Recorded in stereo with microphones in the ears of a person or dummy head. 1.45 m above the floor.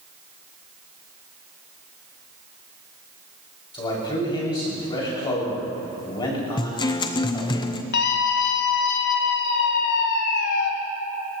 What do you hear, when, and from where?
3.7 s a man speaking: 30° left (ahead or behind), 6 m
6.6 s a guitar: 25° left (ahead or behind), 0.7 m
7.9 s a scream: 60° left (ahead or behind), 1.8 m